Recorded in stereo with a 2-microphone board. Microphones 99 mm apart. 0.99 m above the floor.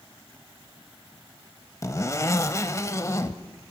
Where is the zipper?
30° left (ahead or behind), 0.9 m.